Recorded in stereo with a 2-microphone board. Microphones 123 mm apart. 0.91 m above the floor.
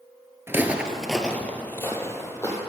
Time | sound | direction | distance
0.5 | footsteps | 20° right (ahead or behind) | 0.9 m